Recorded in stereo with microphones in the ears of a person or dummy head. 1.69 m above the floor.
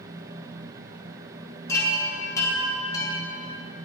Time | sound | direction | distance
1.7 | a chime | 15° left (ahead or behind) | 8.5 m